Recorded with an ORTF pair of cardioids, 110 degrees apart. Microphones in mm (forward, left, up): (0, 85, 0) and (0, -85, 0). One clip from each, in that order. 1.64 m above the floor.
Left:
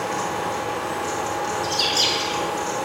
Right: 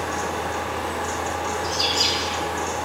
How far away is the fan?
About 3 m.